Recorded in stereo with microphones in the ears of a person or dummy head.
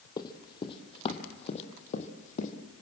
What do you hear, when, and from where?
0.2 s running footsteps: 25° left (ahead or behind), 3 m; by 2.5 s 50° left (ahead or behind), 3.5 m